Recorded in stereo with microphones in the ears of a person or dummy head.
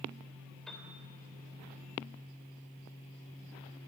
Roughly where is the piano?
Centre.